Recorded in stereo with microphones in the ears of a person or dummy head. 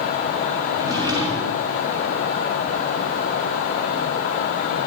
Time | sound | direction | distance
0.7 | a drawer | 15° right (ahead or behind) | 2 m